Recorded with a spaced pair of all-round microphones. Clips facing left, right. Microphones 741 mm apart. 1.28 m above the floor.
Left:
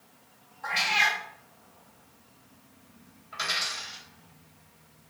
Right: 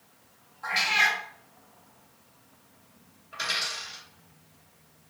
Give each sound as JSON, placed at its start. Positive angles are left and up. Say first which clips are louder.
{"t": 0.6, "sound": "a cat meowing", "louder": "even", "side_deg": -35, "distance_m": 1.0}
{"t": 3.3, "sound": "a dropped coin", "louder": "even", "side_deg": 35, "distance_m": 1.0}